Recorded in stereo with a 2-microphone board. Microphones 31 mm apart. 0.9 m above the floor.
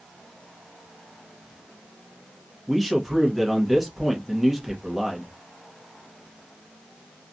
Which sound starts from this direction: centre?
A man speaking, at 2.7 s.